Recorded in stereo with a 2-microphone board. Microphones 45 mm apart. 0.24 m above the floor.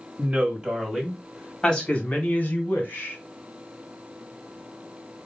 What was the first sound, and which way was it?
A woman speaking, 30° right (ahead or behind).